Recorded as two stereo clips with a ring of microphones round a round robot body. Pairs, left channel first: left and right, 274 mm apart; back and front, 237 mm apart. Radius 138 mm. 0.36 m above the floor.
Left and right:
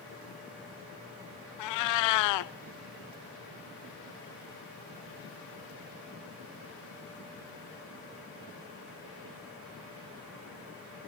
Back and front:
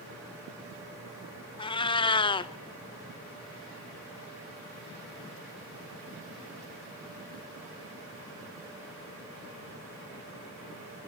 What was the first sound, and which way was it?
A cat meowing, 110° left.